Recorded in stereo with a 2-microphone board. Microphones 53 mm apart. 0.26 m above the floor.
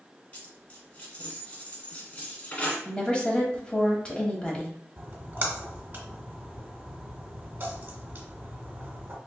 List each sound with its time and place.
0.3 s a dropped coin: 30° left (ahead or behind), 1.4 m
2.9 s a woman speaking: 20° left (ahead or behind), 1.1 m
5.0 s a splash: 35° right (ahead or behind), 1.1 m